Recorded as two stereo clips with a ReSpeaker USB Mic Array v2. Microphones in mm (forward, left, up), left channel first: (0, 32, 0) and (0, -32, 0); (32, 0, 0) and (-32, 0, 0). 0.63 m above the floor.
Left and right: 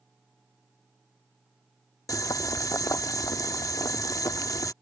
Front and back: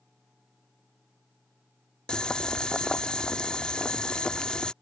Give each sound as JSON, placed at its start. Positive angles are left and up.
{"t": 2.1, "sound": "boiling", "azimuth_deg": 75}